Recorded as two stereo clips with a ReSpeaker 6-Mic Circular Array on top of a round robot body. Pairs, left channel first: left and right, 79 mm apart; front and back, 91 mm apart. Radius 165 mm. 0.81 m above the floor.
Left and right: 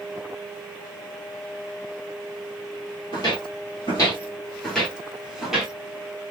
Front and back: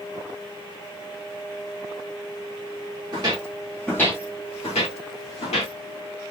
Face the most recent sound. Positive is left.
turn(degrees=-10)